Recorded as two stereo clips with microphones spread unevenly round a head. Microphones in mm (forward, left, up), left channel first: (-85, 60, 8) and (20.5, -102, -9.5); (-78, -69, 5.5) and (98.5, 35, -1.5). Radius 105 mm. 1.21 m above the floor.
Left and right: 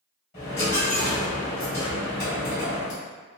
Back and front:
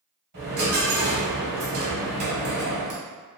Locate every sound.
0.3 s a dropped coin: 70° left, 1.4 m